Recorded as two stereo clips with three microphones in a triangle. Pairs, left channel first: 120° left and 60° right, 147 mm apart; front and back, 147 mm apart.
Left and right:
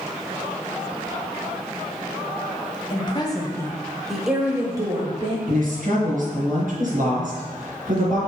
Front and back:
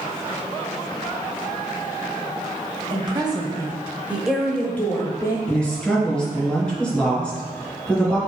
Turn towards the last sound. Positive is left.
turn(degrees=-85)